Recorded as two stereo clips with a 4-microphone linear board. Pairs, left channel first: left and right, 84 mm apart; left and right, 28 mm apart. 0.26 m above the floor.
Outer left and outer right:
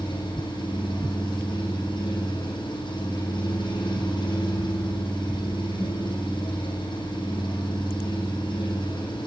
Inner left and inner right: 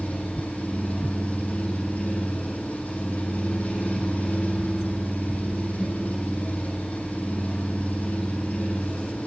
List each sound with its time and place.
0.0 s an engine running: 70° left (ahead or behind), 7.5 m